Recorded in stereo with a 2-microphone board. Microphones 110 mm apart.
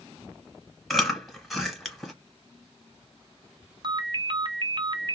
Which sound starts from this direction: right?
A ringtone, at 3.8 s.